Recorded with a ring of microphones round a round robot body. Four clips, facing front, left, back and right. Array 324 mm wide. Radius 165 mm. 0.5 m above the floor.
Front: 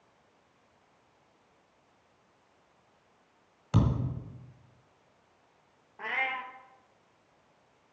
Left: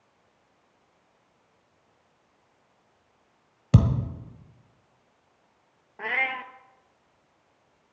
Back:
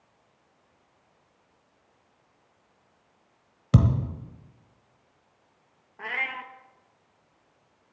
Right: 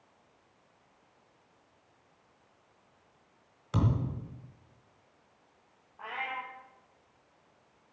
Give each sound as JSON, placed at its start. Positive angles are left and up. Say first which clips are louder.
{"t": 3.7, "sound": "a thud", "louder": "left 7 dB, back 5 dB", "azimuth_deg": 130, "distance_m": 1.4}
{"t": 6.0, "sound": "a cat meowing", "louder": "left 7 dB, even", "azimuth_deg": 95, "distance_m": 1.0}